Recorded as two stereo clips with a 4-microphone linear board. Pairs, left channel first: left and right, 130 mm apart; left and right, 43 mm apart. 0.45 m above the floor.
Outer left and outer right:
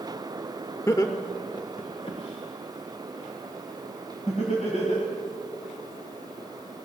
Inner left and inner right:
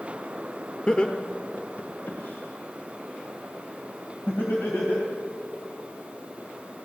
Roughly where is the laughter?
Left.